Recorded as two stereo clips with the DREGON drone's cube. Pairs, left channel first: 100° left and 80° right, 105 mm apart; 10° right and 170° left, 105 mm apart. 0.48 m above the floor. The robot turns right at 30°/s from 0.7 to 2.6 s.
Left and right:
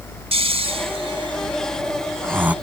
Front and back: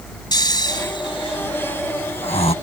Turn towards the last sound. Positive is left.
turn(degrees=0)